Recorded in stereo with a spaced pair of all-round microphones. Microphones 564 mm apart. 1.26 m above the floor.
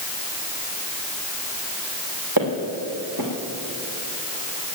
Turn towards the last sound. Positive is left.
turn(degrees=-35)  # may be behind; listen again after turning